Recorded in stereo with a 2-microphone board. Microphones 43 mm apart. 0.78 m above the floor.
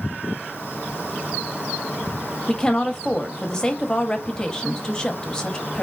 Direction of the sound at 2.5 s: 15° left (ahead or behind).